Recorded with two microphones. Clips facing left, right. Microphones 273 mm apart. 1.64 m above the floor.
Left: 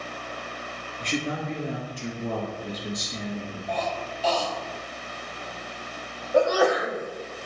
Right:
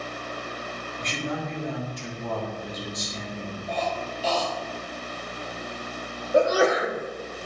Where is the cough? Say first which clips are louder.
Right 1 dB; 30° right (ahead or behind), 3.5 m.